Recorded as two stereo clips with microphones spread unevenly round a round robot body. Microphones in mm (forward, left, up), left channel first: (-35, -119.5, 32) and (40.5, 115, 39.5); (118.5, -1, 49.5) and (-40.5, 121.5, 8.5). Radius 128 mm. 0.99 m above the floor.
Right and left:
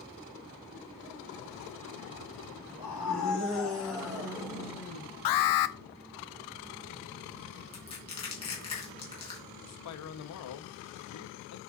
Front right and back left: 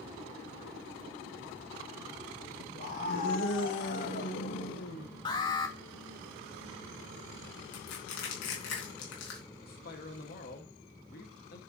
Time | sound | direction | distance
2.8 | a scream | straight ahead | 5.5 m
5.2 | an alarm | 110° right | 0.7 m
7.7 | crushing | 40° right | 3.5 m
9.6 | a man speaking | 95° right | 1.3 m